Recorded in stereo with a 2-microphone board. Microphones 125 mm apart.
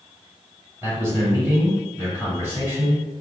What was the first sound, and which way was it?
A man speaking, 20° right (ahead or behind).